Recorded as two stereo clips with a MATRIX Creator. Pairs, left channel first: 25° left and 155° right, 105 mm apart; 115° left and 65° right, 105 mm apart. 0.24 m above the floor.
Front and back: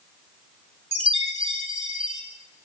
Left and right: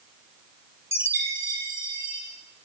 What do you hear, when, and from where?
0.9 s a chime: 130° right, 3 m